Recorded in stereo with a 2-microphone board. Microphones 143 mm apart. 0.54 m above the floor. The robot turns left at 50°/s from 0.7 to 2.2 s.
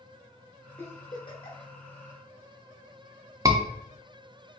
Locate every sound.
0.8 s a giggle: 15° left (ahead or behind), 1.1 m; by 1.7 s 50° left (ahead or behind), 1.1 m
3.5 s a scream: 25° right (ahead or behind), 0.7 m